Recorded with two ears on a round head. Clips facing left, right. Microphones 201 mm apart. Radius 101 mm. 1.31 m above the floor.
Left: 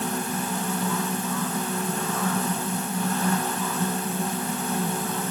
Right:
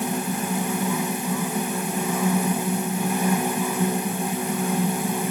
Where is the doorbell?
I don't hear a doorbell.